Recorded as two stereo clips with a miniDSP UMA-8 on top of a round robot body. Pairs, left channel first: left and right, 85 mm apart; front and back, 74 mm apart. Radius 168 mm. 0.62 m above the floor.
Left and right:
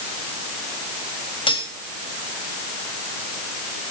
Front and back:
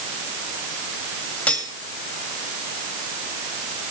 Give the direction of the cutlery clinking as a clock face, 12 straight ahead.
10 o'clock.